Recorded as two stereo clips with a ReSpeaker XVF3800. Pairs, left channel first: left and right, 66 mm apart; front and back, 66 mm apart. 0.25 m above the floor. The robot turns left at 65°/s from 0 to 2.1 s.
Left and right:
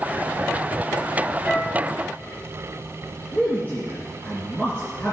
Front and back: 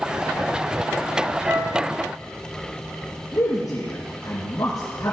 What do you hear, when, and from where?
1.4 s a flute: 165° left, 1.1 m; by 1.8 s 145° left, 1.1 m
3.3 s a man speaking: 30° left, 3.5 m